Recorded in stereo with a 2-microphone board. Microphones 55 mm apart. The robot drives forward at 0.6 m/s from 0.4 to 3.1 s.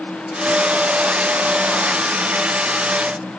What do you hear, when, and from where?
Only background noise.